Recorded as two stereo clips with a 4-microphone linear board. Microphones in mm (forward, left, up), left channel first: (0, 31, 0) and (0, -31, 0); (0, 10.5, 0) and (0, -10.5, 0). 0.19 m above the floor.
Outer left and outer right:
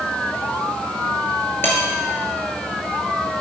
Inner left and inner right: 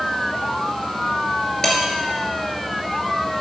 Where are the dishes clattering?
35° left (ahead or behind), 2.5 m.